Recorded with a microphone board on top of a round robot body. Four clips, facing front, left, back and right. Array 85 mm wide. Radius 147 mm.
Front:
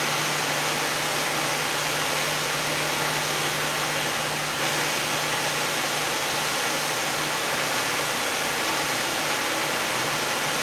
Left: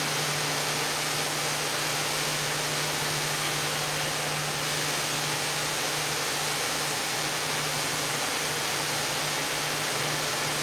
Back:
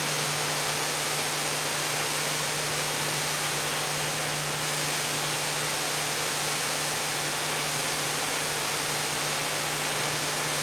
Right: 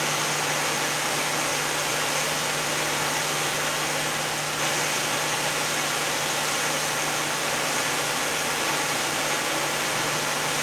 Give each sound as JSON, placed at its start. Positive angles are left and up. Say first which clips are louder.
{"t": 0.0, "sound": "running water", "louder": "right 4 dB, front 4 dB", "azimuth_deg": -55, "distance_m": 1.2}